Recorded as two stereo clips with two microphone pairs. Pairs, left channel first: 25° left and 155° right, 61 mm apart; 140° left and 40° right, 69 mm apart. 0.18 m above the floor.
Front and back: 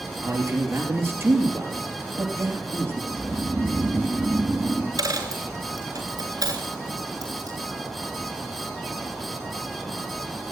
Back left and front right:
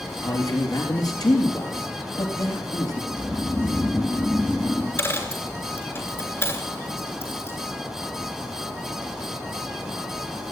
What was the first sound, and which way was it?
A man speaking, 160° left.